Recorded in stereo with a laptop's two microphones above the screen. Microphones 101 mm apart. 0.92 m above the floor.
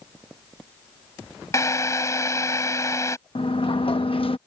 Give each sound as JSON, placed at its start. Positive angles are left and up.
{"t": 1.5, "sound": "a drill", "side_deg": 30}
{"t": 3.4, "sound": "a sliding door", "side_deg": 60}